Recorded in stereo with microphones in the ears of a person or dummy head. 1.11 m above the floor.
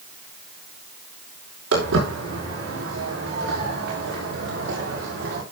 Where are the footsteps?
75° right (ahead or behind), 7.5 m; by 5.4 s 65° right (ahead or behind), 6 m.